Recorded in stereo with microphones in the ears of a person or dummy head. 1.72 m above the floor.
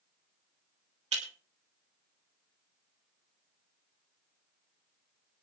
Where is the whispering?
I don't hear whispering.